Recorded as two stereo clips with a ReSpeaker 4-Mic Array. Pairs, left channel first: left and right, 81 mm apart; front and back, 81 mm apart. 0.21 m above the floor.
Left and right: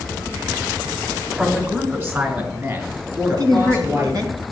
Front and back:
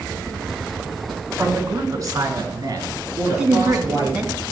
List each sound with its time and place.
1.4 s a man speaking: 150° right, 2 m; by 4.3 s 140° right, 6 m
3.3 s a woman speaking: 105° right, 2.5 m